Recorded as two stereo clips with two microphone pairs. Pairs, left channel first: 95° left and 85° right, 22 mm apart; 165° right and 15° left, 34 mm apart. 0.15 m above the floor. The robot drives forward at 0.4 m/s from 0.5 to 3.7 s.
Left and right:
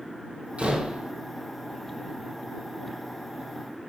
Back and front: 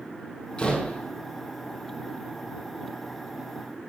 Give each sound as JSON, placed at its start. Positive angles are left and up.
{"t": 0.6, "sound": "a door slam", "azimuth_deg": -105, "distance_m": 4.0}